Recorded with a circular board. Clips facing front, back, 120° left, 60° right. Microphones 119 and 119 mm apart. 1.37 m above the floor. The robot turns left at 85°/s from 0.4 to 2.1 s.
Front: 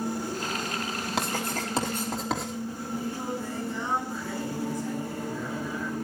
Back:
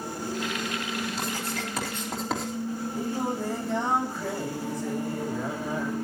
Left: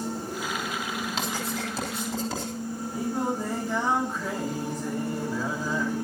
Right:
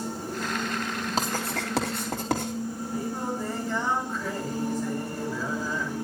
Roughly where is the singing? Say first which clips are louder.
Back 2 dB, left 4 dB; behind.